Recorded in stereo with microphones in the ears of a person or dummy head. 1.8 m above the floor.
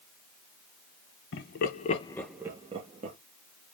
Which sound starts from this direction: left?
Laughter, at 1.3 s.